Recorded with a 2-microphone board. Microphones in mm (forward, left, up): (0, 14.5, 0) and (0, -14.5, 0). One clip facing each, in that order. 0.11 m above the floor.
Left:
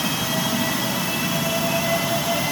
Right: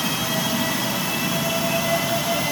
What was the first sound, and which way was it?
Only background noise.